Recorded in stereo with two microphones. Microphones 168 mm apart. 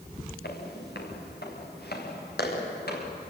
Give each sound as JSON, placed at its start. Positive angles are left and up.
{"t": 0.4, "sound": "footsteps", "side_deg": 90, "distance_m": 6.0}